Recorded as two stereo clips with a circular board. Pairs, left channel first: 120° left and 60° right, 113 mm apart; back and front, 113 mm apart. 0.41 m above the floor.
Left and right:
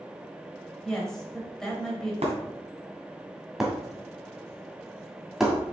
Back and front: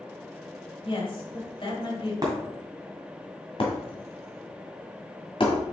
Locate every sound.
0.8 s a woman speaking: 155° right, 2 m
2.2 s breaking glass: 55° right, 2 m
3.6 s breaking glass: 145° right, 1.7 m